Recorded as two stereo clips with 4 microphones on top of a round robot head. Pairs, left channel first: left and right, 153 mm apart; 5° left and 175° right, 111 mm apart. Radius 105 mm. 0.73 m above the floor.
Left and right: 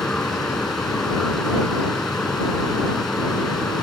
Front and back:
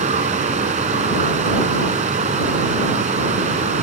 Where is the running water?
Straight behind.